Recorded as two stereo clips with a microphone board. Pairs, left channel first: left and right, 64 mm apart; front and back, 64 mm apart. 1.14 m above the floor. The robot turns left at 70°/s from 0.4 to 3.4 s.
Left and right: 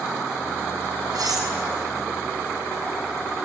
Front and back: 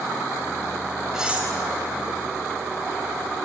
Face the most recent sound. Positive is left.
turn(degrees=105)